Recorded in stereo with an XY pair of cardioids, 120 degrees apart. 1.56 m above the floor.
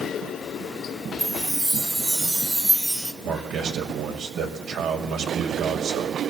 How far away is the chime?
About 2.0 m.